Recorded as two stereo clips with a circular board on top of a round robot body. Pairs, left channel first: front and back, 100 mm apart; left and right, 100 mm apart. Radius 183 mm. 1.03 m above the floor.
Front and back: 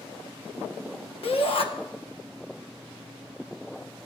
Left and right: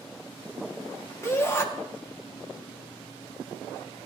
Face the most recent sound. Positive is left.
turn(degrees=25)